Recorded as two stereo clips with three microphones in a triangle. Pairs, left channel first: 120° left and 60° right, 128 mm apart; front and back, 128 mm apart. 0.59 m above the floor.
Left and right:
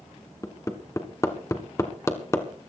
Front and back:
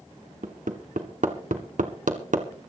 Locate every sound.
0.4 s hammering: 175° right, 1.7 m